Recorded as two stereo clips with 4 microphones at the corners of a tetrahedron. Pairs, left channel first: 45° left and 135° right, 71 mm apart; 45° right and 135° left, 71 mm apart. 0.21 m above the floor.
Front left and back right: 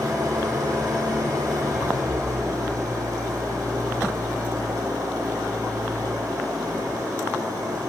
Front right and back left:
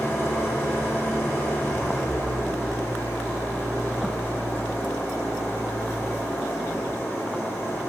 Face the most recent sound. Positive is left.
turn(degrees=-100)